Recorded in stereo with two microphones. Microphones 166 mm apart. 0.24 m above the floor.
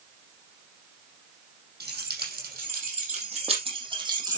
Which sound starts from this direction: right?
Keys jangling, at 1.8 s.